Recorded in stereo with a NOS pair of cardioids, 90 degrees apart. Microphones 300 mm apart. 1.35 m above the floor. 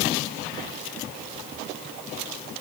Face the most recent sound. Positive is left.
No sound to turn to.